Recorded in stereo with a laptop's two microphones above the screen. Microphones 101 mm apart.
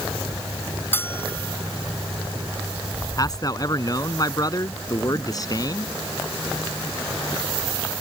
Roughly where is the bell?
Left.